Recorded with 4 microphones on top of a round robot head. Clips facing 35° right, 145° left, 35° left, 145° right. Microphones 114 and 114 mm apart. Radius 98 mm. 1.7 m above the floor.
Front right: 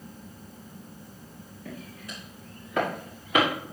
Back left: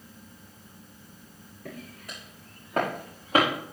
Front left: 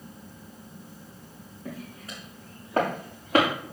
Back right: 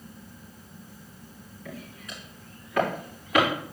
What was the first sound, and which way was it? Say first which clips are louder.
Footsteps: even, front left 2 dB; 100° left.